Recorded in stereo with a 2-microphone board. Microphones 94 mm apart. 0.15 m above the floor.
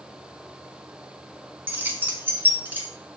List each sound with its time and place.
1.7 s keys jangling: 20° right (ahead or behind), 0.7 m